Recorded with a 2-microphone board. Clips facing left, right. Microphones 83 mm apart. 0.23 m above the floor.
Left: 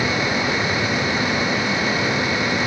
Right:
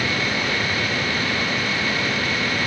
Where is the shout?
No shout in this recording.